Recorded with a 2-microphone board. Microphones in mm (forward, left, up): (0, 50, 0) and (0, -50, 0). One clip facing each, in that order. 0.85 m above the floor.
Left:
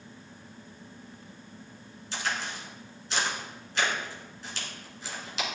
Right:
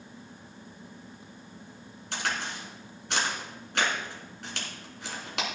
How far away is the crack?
About 2.5 m.